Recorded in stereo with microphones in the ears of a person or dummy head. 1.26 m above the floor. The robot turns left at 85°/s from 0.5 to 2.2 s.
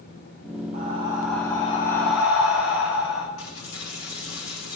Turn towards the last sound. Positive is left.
turn(degrees=65)  # may be behind; listen again after turning